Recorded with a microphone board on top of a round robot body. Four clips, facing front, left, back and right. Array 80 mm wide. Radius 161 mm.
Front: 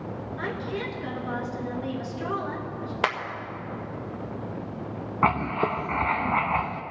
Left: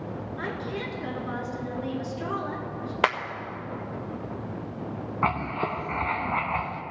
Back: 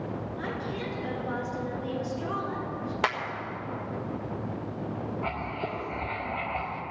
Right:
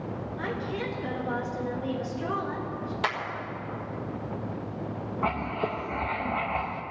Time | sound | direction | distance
0.4 | a woman speaking | 50° left | 6 m
3.0 | a clap | 75° left | 1.8 m
5.2 | writing | 20° left | 0.7 m